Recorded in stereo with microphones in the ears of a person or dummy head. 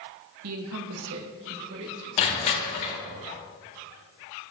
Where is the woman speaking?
80° right, 0.9 m; by 2.1 s 65° right (ahead or behind), 2 m.